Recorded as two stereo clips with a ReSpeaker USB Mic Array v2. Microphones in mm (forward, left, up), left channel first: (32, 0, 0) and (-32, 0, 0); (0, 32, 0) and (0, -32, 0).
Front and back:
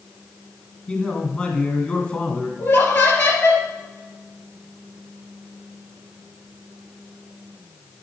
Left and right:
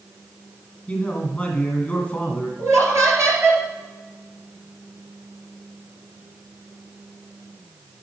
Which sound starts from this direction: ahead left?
A man speaking, at 0.9 s.